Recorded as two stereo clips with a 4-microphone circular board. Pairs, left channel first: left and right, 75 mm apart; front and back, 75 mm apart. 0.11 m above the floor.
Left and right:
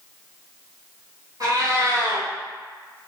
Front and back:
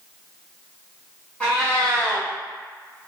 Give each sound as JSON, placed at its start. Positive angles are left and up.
{"t": 1.4, "sound": "a cat meowing", "azimuth_deg": -70, "distance_m": 1.3}